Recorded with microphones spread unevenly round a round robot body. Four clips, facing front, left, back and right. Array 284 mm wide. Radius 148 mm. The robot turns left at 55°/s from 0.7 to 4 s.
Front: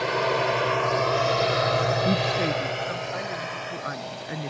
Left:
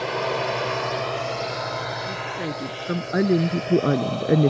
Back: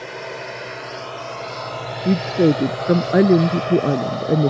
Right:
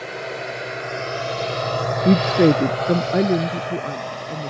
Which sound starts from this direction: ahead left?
A drone, at 0.0 s.